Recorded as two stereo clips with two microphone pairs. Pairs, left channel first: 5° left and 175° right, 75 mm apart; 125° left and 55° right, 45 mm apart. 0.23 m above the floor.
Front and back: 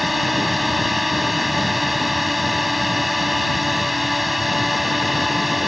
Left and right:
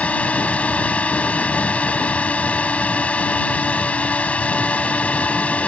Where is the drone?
95° left.